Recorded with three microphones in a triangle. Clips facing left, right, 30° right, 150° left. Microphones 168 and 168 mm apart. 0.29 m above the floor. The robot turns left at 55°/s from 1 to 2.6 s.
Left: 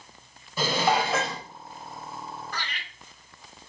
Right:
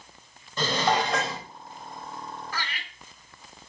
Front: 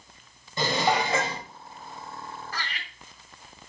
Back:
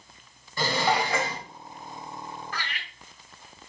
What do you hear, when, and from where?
0.6 s dishes clattering: 15° left, 0.6 m; by 1.4 s 10° right, 0.6 m
2.5 s laughter: 10° right, 1.9 m; by 2.9 s 15° right, 1.9 m